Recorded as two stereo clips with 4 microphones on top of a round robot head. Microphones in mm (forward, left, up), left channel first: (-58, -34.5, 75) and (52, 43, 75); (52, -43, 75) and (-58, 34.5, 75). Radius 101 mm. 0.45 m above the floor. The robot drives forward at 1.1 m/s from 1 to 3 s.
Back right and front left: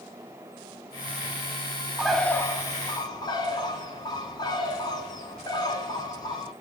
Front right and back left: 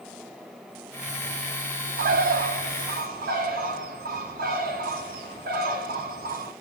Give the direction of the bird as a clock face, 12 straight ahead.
8 o'clock.